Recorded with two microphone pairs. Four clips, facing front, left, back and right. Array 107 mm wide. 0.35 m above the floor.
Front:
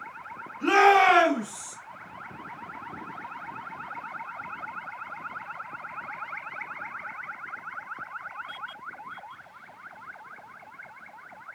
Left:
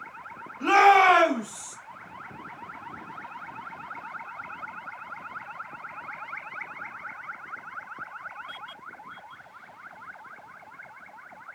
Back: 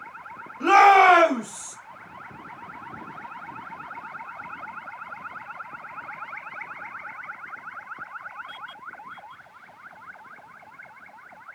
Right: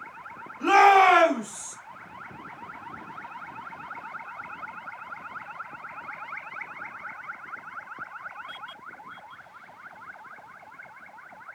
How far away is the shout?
About 1.7 m.